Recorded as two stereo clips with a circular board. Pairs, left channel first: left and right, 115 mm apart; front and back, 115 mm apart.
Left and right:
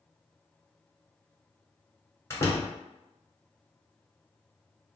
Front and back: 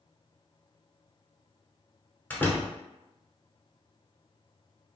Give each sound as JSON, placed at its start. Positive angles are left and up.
{"t": 2.3, "sound": "a door slam", "azimuth_deg": 60, "distance_m": 1.0}